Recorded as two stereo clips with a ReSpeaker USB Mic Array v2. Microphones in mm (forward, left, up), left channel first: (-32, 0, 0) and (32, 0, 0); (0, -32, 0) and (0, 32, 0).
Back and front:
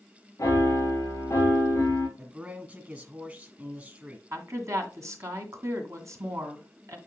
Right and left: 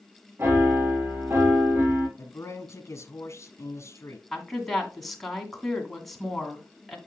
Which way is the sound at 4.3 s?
5° right.